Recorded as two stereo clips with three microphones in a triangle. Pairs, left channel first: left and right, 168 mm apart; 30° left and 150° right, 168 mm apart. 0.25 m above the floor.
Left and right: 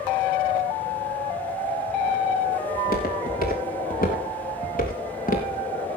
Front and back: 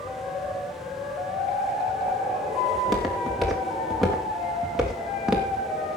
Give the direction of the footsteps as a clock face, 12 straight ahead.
8 o'clock.